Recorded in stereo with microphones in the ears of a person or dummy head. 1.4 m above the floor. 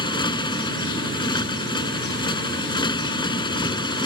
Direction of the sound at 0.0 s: 30° left (ahead or behind).